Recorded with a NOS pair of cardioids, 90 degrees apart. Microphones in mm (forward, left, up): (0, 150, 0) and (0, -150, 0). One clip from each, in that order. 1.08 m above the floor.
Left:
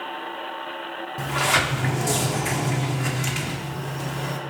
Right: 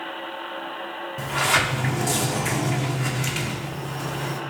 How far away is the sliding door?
About 1.6 m.